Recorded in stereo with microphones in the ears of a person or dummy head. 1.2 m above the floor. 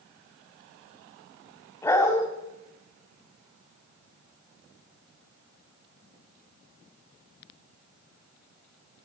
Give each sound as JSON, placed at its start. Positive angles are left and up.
{"t": 1.8, "sound": "a dog barking", "side_deg": 15, "distance_m": 1.7}